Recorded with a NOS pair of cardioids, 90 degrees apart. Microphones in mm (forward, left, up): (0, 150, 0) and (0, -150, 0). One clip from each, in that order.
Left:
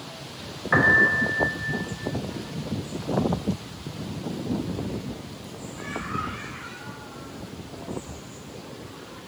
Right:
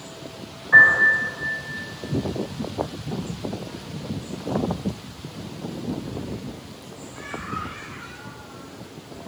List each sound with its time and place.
0.7 s a piano: 45° left, 1.6 m